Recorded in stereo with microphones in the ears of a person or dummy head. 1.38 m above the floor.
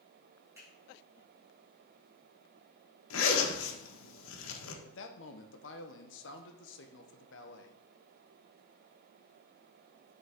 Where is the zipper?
90° left, 1.3 m.